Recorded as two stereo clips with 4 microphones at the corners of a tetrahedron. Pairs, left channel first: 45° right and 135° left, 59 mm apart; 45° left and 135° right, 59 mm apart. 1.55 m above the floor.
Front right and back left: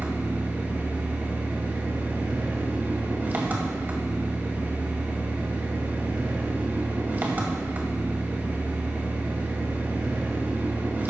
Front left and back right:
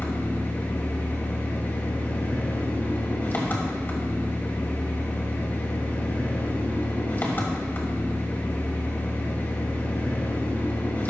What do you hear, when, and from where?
0.0 s an engine running: 90° left, 2 m